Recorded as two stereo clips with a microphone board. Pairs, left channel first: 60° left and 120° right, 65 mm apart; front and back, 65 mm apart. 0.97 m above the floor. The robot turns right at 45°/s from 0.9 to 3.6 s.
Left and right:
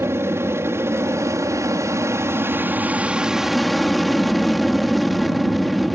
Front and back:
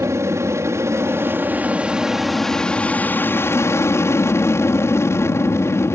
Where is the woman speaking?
No woman speaking in this recording.